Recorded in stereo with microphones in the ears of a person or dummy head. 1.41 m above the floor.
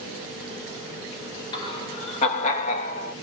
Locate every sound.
1.5 s laughter: 30° left (ahead or behind), 2.0 m; by 3.1 s 60° left (ahead or behind), 1.6 m